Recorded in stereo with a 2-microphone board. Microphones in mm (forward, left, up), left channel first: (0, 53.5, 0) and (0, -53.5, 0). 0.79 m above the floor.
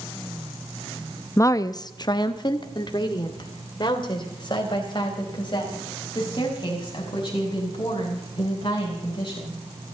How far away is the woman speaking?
About 0.5 m.